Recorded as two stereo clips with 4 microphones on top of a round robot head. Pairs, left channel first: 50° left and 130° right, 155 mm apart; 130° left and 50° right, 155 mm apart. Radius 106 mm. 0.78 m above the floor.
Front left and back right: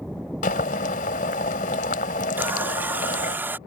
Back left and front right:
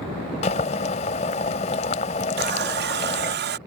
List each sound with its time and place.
0.4 s boiling: 85° left
2.4 s a running tap: 50° right